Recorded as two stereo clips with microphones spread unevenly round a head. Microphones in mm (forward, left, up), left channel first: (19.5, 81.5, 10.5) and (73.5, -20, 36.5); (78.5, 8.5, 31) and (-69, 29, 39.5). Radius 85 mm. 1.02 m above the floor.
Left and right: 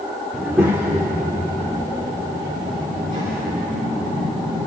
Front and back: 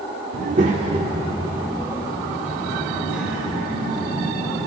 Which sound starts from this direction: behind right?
A child speaking, at 0.3 s.